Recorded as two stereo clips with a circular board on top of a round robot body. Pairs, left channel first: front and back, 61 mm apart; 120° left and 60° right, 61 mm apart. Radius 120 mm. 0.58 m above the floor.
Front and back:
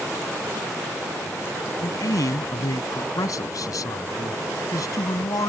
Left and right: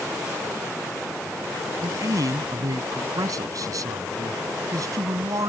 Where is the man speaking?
30° right.